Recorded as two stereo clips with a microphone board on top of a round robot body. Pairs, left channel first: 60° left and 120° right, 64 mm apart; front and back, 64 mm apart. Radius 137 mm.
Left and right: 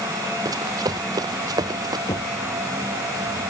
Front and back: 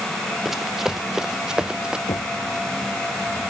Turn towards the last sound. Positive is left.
turn(degrees=25)